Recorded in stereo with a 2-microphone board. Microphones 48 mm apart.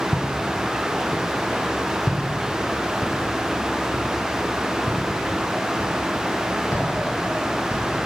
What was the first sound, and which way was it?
Footsteps, 5° left (ahead or behind).